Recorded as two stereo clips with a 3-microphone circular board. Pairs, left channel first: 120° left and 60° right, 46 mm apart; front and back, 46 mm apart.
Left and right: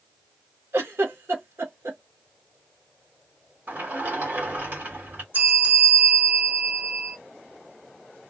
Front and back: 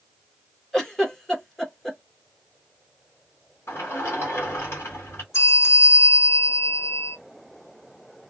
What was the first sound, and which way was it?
A giggle, 80° right.